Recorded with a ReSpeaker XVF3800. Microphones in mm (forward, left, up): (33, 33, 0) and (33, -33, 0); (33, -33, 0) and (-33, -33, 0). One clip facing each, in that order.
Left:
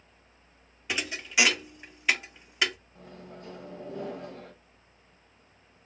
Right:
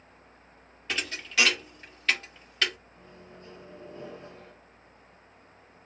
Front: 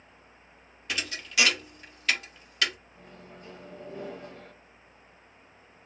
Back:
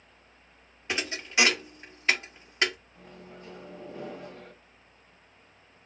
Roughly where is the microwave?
Left.